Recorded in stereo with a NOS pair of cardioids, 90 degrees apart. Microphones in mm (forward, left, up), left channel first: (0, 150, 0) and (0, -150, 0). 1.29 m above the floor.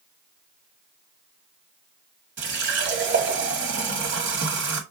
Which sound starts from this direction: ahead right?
A running tap, at 2.4 s.